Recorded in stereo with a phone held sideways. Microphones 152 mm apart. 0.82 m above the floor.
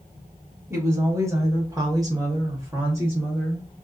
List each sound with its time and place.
0.7 s a woman speaking: 15° right (ahead or behind), 1.2 m